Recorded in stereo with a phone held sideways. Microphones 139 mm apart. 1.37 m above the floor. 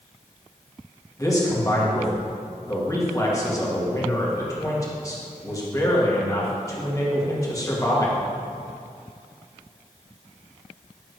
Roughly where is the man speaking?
Left.